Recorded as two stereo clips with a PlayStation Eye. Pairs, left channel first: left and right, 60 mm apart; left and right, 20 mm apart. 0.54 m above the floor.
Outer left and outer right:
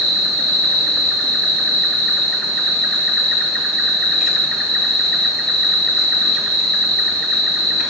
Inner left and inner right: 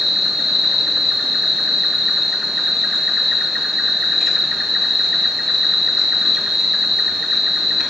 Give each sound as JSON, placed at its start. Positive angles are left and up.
{"t": 0.0, "sound": "an insect", "side_deg": 10, "distance_m": 1.4}